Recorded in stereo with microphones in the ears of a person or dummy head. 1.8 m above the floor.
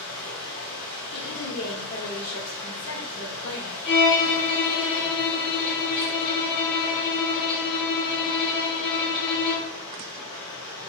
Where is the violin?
25° left (ahead or behind), 0.6 m.